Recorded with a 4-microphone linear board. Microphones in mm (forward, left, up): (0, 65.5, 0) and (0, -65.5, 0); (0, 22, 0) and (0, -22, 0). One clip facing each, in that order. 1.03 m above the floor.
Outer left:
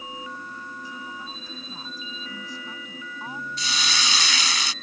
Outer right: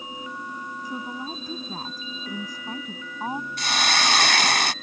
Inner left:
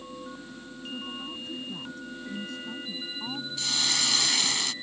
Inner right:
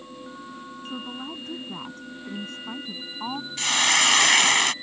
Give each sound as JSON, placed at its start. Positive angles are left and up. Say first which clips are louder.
{"t": 0.8, "sound": "a woman speaking", "louder": "outer right 5 dB, inner right 2 dB", "side_deg": -45}
{"t": 3.6, "sound": "a hiss", "louder": "outer right 6 dB, inner right 9 dB", "side_deg": -60}